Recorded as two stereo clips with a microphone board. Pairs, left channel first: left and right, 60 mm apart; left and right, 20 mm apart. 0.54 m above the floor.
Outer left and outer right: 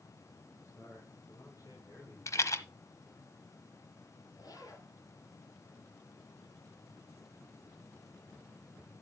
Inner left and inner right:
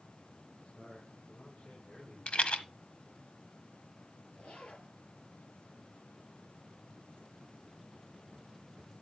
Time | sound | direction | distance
0.5 | a man speaking | 55° left (ahead or behind) | 4.5 m
2.3 | a rattle | 60° left (ahead or behind) | 1.2 m
4.3 | a zipper | 90° left | 5 m